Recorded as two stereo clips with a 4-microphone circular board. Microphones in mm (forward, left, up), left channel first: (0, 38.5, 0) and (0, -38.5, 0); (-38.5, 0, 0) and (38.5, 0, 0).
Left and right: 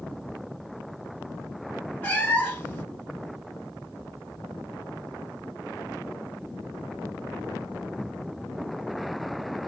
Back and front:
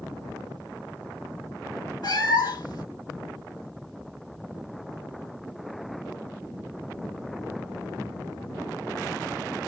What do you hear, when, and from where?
2.0 s a cat meowing: 160° left, 1.2 m